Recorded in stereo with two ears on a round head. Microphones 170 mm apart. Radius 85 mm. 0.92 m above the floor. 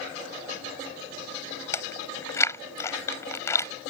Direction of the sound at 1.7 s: 15° left (ahead or behind).